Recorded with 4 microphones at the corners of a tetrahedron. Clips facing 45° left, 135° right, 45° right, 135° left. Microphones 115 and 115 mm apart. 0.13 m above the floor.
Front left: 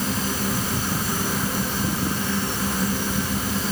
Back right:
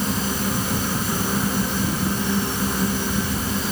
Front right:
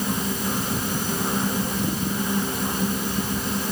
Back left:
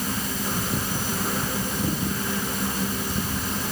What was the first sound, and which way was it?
Only background noise.